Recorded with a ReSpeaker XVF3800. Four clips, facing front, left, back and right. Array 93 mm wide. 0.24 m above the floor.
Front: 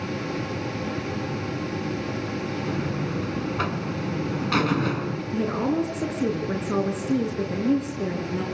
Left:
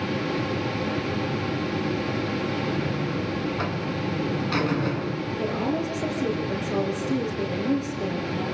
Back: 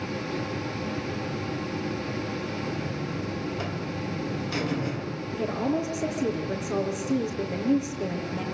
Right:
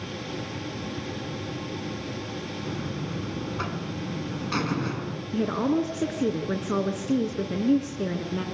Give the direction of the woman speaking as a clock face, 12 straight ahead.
2 o'clock.